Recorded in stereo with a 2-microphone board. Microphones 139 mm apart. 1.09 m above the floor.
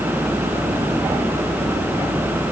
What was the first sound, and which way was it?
Only background noise.